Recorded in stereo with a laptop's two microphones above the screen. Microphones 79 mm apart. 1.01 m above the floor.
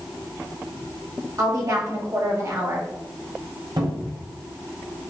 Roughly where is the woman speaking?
Right.